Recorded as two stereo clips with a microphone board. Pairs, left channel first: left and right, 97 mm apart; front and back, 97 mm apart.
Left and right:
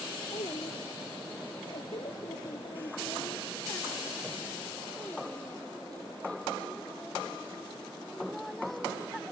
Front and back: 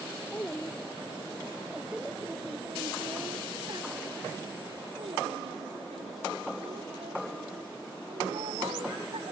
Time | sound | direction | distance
0.3 | a child speaking | 70° left | ?